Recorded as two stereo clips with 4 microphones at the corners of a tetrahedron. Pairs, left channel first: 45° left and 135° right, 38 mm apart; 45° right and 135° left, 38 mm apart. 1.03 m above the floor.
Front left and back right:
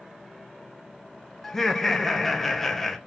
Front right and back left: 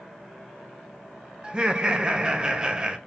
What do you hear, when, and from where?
1.4 s laughter: 115° left, 0.8 m